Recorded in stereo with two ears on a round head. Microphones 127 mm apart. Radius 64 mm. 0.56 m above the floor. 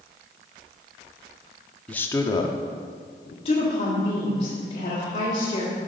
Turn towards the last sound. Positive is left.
turn(degrees=40)  # may be behind; listen again after turning